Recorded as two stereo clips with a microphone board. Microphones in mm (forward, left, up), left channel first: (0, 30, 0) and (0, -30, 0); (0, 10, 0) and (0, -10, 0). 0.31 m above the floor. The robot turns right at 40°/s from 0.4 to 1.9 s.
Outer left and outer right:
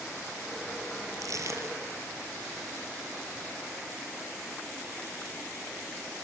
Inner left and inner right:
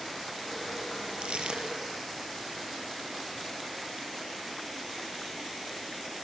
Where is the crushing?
70° right (ahead or behind), 3 m; by 1.9 s 40° right (ahead or behind), 3 m.